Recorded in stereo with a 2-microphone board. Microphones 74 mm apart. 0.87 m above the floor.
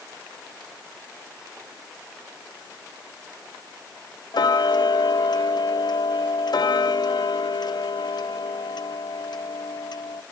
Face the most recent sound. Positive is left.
turn(degrees=70)  # may be behind; listen again after turning